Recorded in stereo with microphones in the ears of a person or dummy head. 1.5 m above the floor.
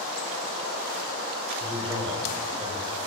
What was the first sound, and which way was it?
A man speaking, 25° right (ahead or behind).